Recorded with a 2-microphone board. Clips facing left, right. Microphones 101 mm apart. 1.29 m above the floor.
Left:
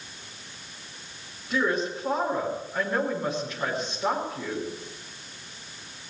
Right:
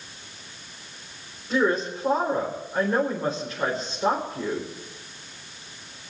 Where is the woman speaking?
35° right (ahead or behind), 4 m.